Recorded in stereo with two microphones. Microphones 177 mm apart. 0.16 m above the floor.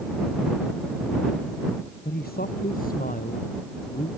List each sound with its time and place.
2.0 s a man speaking: 60° left (ahead or behind); by 4.1 s 45° left (ahead or behind)